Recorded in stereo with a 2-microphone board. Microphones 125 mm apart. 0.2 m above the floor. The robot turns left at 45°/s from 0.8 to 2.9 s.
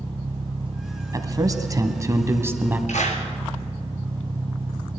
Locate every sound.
0.0 s an engine running: 50° right, 1.0 m; by 5.0 s 140° right, 1.0 m
1.1 s a man speaking: 75° right, 1.3 m; by 2.8 s 150° right, 1.3 m
2.9 s a clap: 70° left (ahead or behind), 3 m